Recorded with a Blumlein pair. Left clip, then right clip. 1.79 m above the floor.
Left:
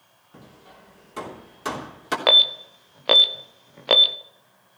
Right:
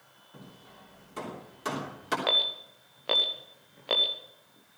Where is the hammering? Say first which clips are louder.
Left 4 dB; 15° left, 3 m.